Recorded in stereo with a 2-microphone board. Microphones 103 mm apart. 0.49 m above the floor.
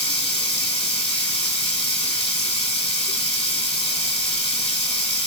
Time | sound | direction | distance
0.0 | running water | 70° left (ahead or behind) | 1.5 m